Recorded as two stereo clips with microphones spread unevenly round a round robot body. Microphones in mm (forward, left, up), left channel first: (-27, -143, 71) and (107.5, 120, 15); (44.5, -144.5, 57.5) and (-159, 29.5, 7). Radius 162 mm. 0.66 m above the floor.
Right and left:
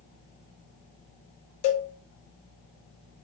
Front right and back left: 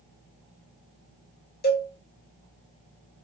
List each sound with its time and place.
1.6 s a cowbell: 95° right, 0.7 m